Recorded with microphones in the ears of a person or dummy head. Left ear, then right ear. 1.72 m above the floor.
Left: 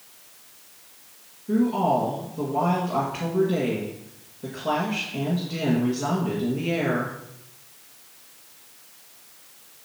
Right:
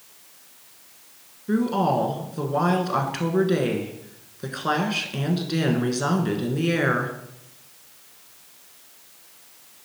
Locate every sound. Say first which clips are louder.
1.5 s a woman speaking: even; 65° right (ahead or behind), 1.5 m